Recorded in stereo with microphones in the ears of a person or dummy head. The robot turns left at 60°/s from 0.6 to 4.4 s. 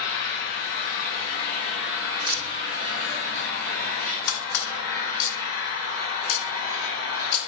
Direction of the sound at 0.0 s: 70° left.